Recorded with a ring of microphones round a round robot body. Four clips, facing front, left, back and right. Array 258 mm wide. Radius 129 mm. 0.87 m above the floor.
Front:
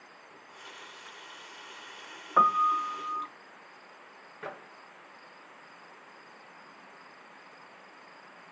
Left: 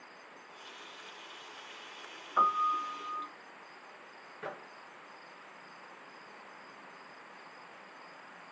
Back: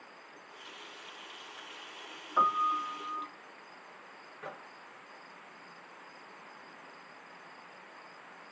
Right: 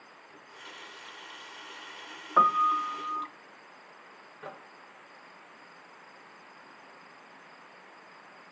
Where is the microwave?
25° left, 0.5 m.